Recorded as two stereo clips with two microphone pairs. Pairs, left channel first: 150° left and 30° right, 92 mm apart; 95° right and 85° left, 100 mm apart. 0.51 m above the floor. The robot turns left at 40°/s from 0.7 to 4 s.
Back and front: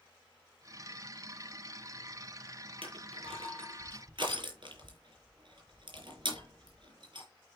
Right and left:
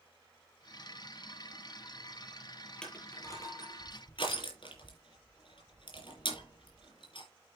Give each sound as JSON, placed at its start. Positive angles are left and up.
{"t": 2.8, "sound": "crushing", "azimuth_deg": -15, "distance_m": 4.0}